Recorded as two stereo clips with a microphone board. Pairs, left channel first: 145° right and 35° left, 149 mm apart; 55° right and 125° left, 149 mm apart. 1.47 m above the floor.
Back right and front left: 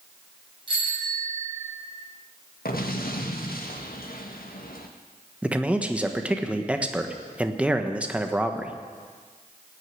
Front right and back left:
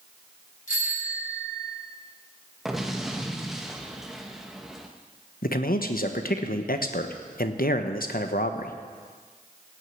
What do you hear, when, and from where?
0.7 s a bicycle bell: 25° right, 8 m
2.6 s an explosion: 145° right, 1.5 m
5.4 s a man speaking: 50° right, 1.2 m